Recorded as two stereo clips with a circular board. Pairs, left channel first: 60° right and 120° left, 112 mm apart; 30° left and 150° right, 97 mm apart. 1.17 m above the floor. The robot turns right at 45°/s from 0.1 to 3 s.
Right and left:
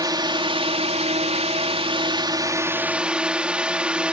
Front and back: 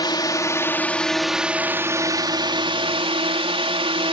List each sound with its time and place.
0.0 s a drone: 70° left; by 4.2 s 160° right